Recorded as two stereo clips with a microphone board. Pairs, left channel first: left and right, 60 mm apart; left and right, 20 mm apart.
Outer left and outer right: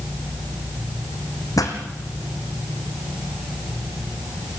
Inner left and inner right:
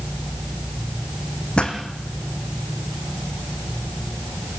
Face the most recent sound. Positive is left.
turn(degrees=70)  # may be behind; listen again after turning